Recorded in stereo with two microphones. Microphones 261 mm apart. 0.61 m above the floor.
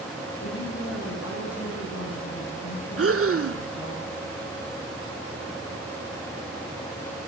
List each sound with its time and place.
0.4 s a woman speaking: 65° left (ahead or behind), 7 m
3.0 s breathing: 60° right (ahead or behind), 0.6 m